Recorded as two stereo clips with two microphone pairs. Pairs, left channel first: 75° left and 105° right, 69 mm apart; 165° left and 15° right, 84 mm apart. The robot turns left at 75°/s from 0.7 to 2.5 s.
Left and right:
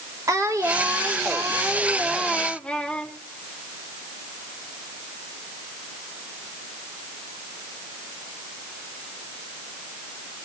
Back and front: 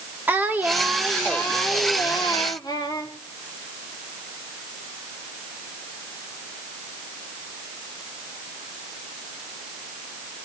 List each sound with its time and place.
0.3 s singing: 75° right, 1.4 m; by 3.1 s 150° left, 1.4 m